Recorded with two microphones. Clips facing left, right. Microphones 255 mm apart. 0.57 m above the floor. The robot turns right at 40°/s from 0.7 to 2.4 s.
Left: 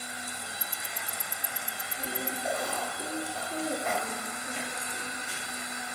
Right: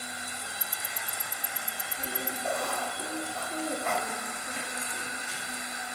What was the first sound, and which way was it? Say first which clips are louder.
Ticking: even; 60° right (ahead or behind).